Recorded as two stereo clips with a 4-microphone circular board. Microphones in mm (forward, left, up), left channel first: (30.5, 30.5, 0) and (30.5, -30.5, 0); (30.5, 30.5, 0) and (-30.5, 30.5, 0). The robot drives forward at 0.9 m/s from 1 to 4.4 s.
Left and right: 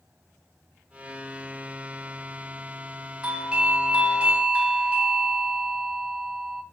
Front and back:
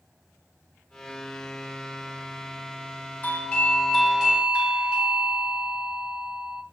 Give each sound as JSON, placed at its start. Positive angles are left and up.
{"t": 3.2, "sound": "a doorbell", "azimuth_deg": -30, "distance_m": 1.6}